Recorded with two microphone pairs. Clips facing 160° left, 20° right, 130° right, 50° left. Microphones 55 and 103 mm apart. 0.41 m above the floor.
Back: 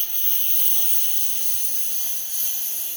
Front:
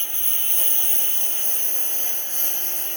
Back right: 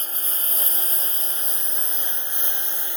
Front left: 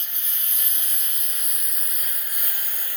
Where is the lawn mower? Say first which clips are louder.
Front 2 dB, back right 6 dB; 80° right; by 3.0 s 65° right.